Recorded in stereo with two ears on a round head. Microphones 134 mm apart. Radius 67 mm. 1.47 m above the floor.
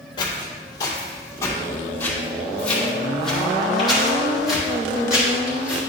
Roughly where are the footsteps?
Left.